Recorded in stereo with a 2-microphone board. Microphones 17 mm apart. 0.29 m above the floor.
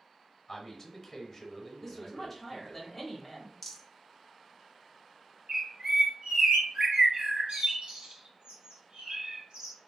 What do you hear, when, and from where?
0.5 s a man speaking: 10° left (ahead or behind), 0.9 m
1.8 s a woman speaking: 15° left (ahead or behind), 0.9 m
3.6 s a rattle: 5° left (ahead or behind), 0.9 m
5.5 s a bird: 65° right (ahead or behind), 0.8 m